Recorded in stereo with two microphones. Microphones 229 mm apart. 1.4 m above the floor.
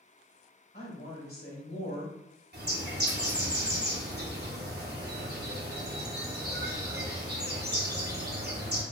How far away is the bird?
About 0.7 m.